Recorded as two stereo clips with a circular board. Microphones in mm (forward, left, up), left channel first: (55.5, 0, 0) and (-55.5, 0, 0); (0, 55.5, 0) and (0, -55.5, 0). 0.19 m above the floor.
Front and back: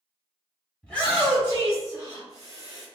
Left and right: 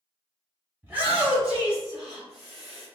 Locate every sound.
0.8 s a shout: 60° right, 1.5 m; by 2.9 s 5° left, 1.8 m